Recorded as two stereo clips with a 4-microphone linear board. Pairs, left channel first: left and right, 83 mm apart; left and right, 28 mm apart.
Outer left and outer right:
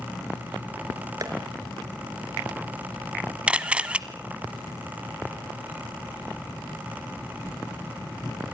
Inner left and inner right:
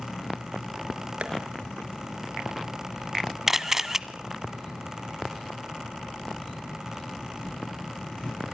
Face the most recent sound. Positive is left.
turn(degrees=-15)  # may be behind; listen again after turning